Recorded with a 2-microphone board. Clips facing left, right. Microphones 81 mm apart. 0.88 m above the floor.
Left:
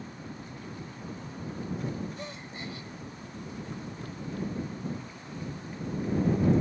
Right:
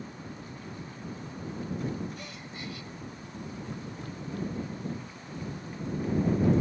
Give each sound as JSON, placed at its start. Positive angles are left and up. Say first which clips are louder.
{"t": 2.2, "sound": "a gasp", "louder": "left 2 dB", "side_deg": 35}